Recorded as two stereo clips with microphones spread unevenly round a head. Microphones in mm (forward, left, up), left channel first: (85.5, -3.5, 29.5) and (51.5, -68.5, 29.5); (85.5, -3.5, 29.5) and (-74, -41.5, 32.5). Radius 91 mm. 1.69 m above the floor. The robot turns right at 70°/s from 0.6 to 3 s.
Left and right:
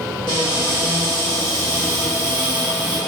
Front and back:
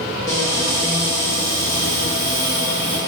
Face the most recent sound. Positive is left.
turn(degrees=-110)